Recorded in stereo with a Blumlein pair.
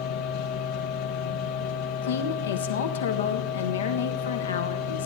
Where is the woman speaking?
65° left, 1.3 m.